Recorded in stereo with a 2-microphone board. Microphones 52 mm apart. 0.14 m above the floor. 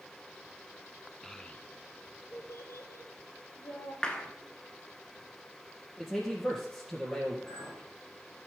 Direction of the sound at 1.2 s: 5° left (ahead or behind).